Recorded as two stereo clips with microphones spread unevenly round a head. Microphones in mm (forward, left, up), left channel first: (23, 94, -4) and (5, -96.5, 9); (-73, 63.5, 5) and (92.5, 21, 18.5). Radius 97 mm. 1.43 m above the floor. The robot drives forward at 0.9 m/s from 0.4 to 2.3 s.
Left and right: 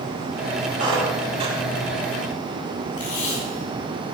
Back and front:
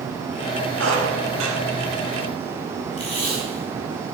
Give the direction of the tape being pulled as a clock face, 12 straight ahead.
8 o'clock.